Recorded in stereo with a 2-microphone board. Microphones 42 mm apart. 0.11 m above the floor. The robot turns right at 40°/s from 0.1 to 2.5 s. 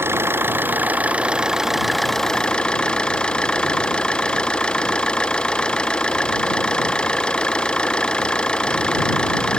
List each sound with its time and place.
0.0 s an engine running: 75° right; by 9.6 s 20° left